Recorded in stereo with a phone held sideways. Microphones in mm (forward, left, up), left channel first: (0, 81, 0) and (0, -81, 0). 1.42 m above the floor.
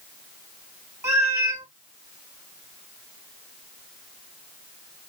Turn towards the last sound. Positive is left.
turn(degrees=-20)  # may be behind; listen again after turning